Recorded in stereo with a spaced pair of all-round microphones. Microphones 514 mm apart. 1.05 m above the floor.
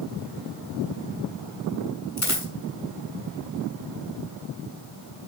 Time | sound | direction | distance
2.2 | a dropped coin | 30° left (ahead or behind) | 3 m